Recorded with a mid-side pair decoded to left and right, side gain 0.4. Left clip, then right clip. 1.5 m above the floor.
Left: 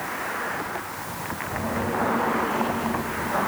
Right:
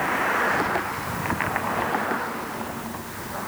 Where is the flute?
No flute in this recording.